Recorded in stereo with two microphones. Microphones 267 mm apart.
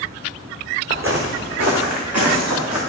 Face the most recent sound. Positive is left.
turn(degrees=-85)